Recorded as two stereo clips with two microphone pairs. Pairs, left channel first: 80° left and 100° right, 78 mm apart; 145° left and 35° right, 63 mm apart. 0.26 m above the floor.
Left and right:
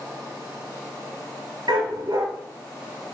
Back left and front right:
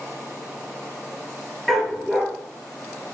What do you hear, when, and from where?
1.7 s a dog barking: 125° right, 1.9 m